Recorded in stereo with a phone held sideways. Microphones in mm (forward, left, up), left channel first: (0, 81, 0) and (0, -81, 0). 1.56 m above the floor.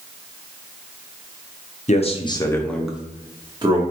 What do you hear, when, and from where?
1.9 s a man speaking: 45° left (ahead or behind), 0.7 m; by 3.8 s 35° right (ahead or behind), 1.0 m